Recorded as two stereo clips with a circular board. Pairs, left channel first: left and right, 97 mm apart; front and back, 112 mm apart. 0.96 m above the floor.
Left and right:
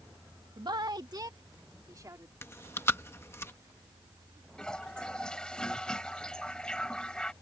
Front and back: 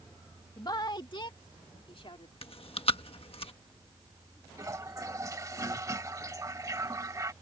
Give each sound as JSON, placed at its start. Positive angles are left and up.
{"t": 0.6, "sound": "a woman speaking", "azimuth_deg": -55}
{"t": 2.4, "sound": "chewing", "azimuth_deg": 25}
{"t": 4.6, "sound": "a toilet flushing", "azimuth_deg": 160}